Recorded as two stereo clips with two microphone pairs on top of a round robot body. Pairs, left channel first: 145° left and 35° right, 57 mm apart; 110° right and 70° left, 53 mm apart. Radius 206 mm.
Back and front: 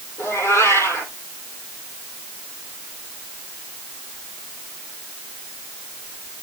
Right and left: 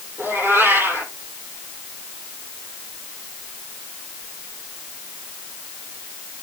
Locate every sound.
0.2 s a cat meowing: 110° left, 9.5 m